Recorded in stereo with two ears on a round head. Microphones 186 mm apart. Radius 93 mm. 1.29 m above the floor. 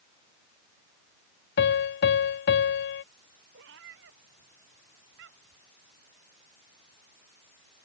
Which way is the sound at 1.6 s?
55° left (ahead or behind).